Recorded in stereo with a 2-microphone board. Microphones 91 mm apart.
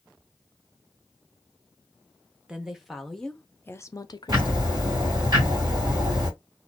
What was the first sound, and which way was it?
A woman speaking, 10° right (ahead or behind).